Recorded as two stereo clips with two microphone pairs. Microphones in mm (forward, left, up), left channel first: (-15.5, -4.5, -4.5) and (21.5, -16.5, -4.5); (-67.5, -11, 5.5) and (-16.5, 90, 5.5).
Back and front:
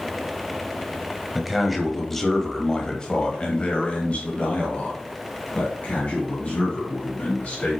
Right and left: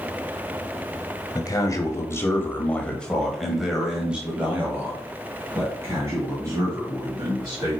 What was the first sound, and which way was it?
A man speaking, 100° right.